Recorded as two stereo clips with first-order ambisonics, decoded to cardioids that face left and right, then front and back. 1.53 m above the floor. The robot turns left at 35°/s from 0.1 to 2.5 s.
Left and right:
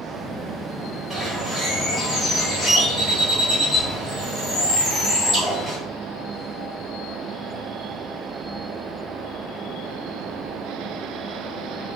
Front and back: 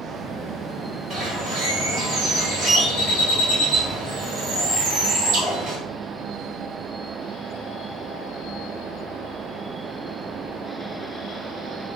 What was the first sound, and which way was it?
A bird, 150° right.